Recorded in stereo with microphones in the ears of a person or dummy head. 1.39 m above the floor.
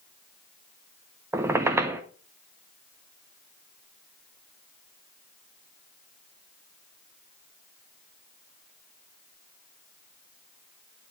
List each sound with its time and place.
1.3 s a squeak: 15° right (ahead or behind), 0.5 m